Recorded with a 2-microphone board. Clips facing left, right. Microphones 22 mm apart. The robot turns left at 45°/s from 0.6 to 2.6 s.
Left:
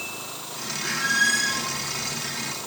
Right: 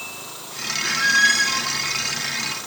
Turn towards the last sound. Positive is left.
turn(degrees=-95)